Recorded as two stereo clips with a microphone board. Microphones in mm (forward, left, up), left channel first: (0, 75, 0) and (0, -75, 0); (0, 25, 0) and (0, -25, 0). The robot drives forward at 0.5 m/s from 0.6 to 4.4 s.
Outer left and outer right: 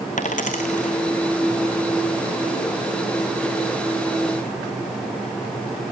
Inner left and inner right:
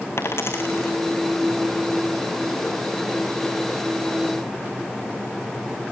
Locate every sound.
0.2 s a dropped coin: 60° left (ahead or behind), 2.5 m; by 0.9 s 55° left (ahead or behind), 2.5 m